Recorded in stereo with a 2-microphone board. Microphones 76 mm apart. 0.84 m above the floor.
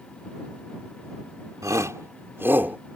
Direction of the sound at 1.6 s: 50° right (ahead or behind).